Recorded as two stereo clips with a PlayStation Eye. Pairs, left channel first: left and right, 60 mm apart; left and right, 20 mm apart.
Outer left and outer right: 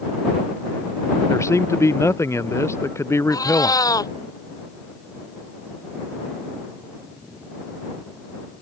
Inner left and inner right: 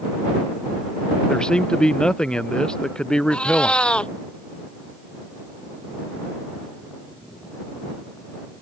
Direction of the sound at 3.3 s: 80° left.